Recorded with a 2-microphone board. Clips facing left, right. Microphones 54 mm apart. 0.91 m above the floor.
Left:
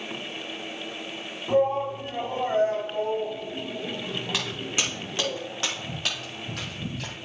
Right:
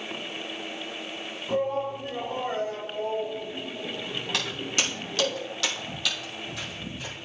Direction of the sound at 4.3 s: 10° left (ahead or behind).